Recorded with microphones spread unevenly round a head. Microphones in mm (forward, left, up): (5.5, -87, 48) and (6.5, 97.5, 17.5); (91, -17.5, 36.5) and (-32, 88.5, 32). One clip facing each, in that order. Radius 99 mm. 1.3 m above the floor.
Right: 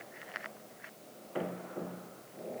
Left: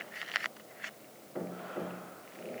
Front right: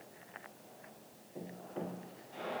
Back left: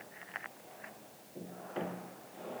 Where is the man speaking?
No man speaking in this recording.